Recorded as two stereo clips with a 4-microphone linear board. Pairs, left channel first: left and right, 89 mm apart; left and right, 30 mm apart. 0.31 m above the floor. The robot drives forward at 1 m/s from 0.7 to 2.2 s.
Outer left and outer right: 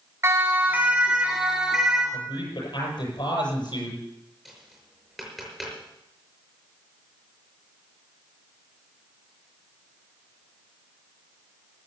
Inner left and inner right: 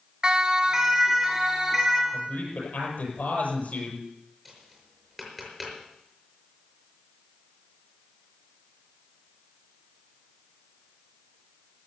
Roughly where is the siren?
Right.